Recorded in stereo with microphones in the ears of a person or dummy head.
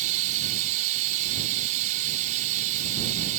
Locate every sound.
0.0 s running water: 45° right (ahead or behind)